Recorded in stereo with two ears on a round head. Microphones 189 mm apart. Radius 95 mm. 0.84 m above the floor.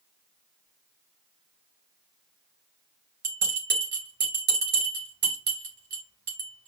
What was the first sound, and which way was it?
A bell, 50° right (ahead or behind).